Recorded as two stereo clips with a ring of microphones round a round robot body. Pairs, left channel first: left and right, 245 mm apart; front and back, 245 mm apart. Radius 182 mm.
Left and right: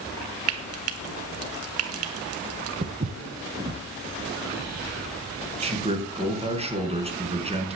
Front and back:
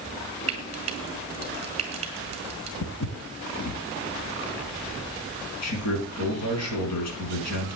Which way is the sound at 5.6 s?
25° right.